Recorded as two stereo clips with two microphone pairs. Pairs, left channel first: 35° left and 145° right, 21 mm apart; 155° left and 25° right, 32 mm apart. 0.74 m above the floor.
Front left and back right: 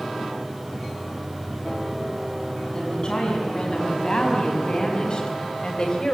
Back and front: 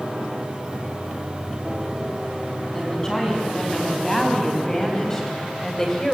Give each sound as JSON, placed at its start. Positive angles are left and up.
{"t": 2.7, "sound": "a woman speaking", "azimuth_deg": 85, "distance_m": 6.5}